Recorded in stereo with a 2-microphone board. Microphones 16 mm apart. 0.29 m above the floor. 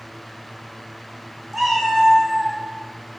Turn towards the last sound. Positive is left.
turn(degrees=20)  # may be behind; listen again after turning